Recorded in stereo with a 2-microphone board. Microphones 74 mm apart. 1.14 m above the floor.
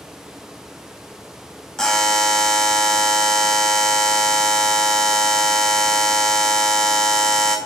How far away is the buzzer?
About 0.6 m.